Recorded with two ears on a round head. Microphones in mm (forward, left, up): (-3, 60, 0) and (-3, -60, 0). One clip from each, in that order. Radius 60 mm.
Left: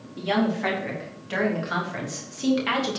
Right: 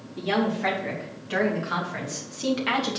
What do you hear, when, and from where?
0.2 s a woman speaking: 15° left (ahead or behind), 4 m; by 3.0 s centre (ahead or behind), 2 m